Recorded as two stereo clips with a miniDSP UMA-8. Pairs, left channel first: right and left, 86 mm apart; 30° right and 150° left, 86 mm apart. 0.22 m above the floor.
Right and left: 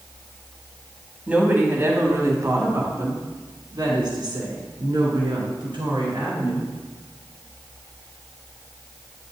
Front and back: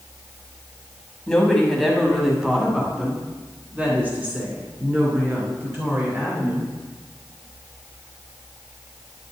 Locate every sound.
1.3 s a woman speaking: 40° left, 1.6 m; by 6.7 s 90° left, 4 m